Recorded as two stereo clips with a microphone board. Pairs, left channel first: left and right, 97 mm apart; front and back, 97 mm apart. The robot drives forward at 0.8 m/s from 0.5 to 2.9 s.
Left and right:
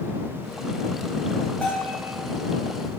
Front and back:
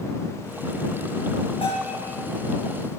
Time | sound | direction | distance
1.6 | a bell | 15° left | 8.5 m